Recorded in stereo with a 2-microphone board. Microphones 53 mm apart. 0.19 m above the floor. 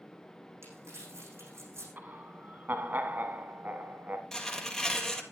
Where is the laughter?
40° right (ahead or behind), 1.2 m.